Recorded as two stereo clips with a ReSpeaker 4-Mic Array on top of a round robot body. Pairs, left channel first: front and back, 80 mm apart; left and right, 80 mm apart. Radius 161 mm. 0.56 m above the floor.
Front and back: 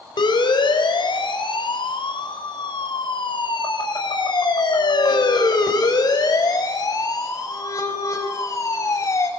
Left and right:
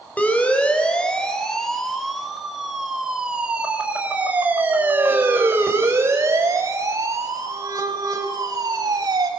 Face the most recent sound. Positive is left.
turn(degrees=-50)